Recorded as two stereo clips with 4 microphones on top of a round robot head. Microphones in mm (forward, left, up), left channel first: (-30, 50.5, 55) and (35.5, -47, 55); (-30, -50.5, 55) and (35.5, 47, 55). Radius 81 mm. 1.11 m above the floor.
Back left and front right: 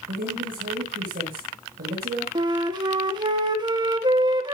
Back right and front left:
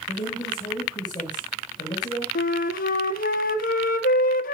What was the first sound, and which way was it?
A woman speaking, 65° right.